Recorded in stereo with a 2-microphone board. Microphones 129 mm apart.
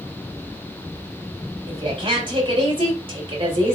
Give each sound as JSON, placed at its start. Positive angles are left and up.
{"t": 1.7, "sound": "a woman speaking", "side_deg": -45, "distance_m": 3.5}